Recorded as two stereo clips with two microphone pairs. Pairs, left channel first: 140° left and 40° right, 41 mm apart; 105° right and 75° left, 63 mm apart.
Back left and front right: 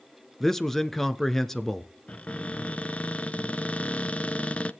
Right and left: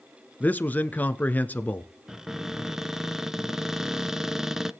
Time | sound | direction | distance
0.4 | a man speaking | 140° right | 1.2 m
2.1 | a cupboard door | 150° left | 0.8 m